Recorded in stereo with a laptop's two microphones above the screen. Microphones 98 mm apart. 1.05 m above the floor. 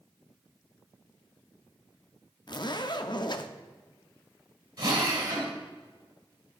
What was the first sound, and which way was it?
A zipper, 50° left (ahead or behind).